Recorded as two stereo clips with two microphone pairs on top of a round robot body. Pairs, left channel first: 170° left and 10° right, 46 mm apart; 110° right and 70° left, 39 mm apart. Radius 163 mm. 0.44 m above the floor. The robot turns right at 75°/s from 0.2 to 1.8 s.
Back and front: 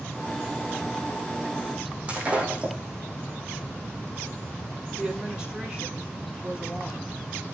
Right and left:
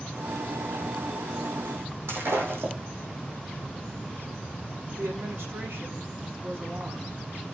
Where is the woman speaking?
70° left, 6.5 m.